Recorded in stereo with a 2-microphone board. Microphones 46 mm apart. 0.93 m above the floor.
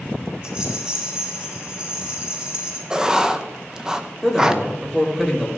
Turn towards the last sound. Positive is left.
turn(degrees=-10)  # may be behind; listen again after turning